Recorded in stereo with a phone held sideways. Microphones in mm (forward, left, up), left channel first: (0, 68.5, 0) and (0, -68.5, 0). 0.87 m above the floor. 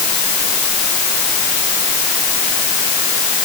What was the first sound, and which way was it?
Only background noise.